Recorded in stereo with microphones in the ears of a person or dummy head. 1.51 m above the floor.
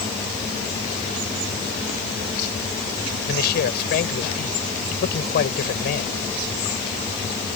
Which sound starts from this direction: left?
A man speaking, at 3.3 s.